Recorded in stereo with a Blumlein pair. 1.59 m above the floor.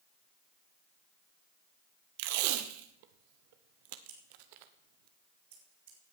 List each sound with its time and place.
2.2 s tape being pulled: 50° right, 1.2 m
4.1 s scissors: 55° right, 4.5 m